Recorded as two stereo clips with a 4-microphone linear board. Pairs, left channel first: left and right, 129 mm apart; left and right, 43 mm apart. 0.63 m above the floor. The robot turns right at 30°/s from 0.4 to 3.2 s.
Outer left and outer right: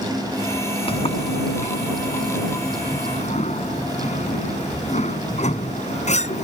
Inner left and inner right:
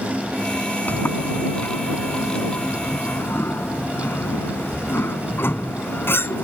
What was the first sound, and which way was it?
A sliding door, 45° left (ahead or behind).